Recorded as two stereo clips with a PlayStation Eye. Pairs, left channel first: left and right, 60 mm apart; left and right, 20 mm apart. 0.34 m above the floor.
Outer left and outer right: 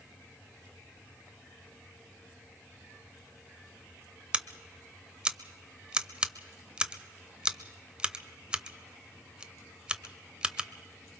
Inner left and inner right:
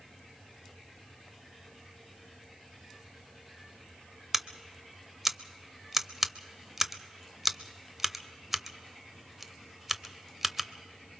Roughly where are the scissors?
Centre.